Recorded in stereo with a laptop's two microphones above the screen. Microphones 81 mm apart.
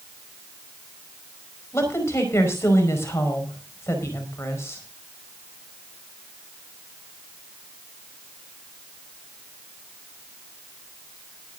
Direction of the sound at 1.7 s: 35° left (ahead or behind).